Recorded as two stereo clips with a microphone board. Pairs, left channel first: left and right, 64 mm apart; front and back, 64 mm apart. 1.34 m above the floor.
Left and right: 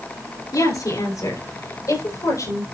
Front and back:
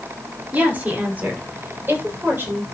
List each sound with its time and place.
0.5 s a woman speaking: 110° left, 4.5 m; by 2.6 s 120° left, 7.5 m